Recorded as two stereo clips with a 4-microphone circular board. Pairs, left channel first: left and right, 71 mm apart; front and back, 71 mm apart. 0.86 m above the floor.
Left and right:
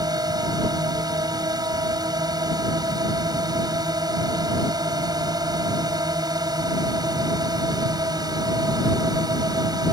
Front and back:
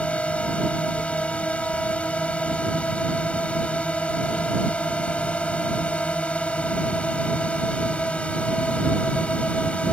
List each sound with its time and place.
0.0 s a drone: 75° right